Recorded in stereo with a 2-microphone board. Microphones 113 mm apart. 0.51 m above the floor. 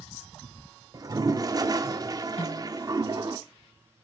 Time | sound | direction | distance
0.9 | a toilet flushing | 35° right (ahead or behind) | 0.7 m
2.4 | a snare drum | 75° left (ahead or behind) | 3 m